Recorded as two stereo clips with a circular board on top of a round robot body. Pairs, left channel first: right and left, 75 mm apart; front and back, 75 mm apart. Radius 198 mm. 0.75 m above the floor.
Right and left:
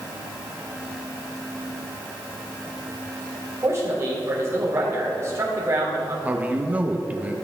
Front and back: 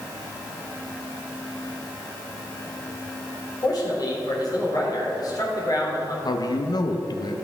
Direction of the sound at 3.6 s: 35° left.